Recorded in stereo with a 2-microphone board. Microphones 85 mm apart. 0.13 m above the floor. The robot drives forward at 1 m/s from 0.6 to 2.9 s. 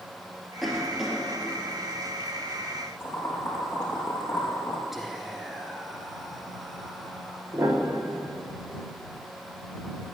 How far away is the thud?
No thud in this recording.